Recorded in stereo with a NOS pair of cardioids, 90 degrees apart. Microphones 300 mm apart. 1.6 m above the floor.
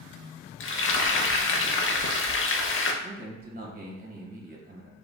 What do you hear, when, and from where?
0.6 s frying: 45° left, 0.7 m
3.0 s a man speaking: 30° right, 1.7 m